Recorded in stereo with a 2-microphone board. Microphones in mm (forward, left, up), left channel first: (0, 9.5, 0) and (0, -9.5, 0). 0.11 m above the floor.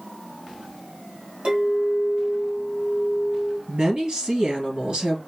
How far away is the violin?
No violin in this recording.